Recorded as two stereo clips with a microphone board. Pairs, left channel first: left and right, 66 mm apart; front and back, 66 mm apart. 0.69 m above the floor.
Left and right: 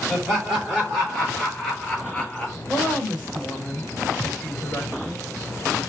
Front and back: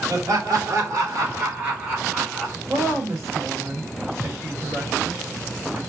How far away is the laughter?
About 1.5 m.